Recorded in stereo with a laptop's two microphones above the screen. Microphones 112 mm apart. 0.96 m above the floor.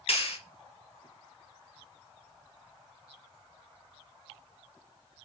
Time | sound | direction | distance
0.1 | a clap | 65° left (ahead or behind) | 1.4 m